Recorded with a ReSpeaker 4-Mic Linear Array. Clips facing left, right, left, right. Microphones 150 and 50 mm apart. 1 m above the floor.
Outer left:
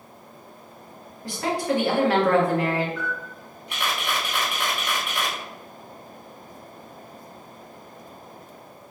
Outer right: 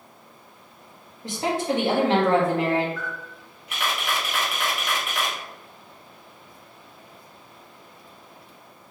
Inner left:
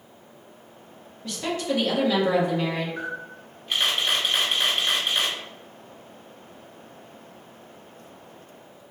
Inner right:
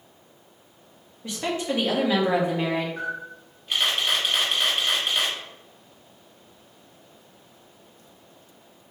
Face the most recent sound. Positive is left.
turn(degrees=0)  # may be behind; listen again after turning